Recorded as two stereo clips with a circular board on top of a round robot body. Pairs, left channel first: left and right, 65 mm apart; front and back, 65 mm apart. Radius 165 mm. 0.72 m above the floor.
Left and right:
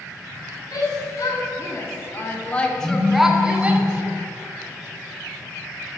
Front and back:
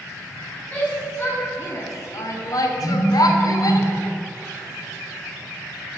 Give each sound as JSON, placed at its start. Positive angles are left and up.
{"t": 0.7, "sound": "a shout", "azimuth_deg": 65, "distance_m": 2.0}
{"t": 2.8, "sound": "a phone buzzing", "azimuth_deg": -15, "distance_m": 2.0}